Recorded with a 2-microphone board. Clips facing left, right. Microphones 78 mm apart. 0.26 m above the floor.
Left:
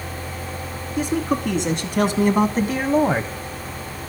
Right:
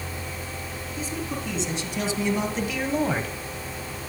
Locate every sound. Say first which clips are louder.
1.0 s a man speaking: left 11 dB; 70° left (ahead or behind), 3 m; by 3.3 s 25° left (ahead or behind), 1.3 m